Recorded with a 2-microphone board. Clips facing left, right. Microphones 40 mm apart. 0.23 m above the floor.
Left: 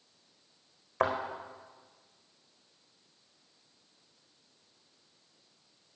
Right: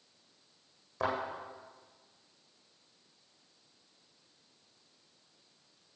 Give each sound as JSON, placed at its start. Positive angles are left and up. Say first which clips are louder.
{"t": 1.0, "sound": "a thud", "louder": "left 4 dB", "side_deg": 50, "distance_m": 4.0}